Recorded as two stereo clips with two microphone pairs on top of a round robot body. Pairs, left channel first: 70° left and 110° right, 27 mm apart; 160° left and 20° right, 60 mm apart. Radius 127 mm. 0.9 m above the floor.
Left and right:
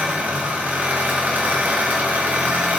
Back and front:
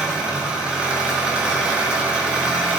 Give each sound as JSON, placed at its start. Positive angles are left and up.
{"t": 0.0, "sound": "an engine running", "azimuth_deg": -95, "distance_m": 1.4}